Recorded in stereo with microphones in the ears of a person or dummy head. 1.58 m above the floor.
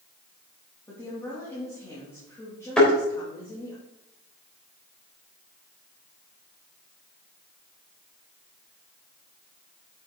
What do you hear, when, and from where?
0.9 s a woman speaking: 15° left (ahead or behind), 3 m
2.8 s a thud: 5° left (ahead or behind), 3.5 m